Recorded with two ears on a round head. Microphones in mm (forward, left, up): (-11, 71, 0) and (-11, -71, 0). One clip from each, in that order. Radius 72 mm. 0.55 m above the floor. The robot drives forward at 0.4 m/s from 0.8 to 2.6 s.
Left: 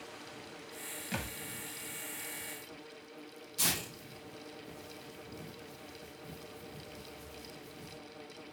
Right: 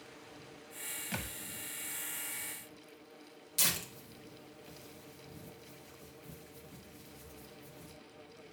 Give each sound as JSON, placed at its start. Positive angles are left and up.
{"t": 1.1, "sound": "a thud", "side_deg": -10, "distance_m": 0.6}
{"t": 3.6, "sound": "tearing paper", "side_deg": -65, "distance_m": 2.5}